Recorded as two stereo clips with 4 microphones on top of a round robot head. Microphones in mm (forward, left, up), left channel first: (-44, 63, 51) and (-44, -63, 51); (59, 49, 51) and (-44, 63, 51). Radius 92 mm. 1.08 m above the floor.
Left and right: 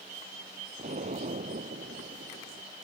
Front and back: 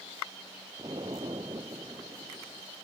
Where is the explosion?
120° right.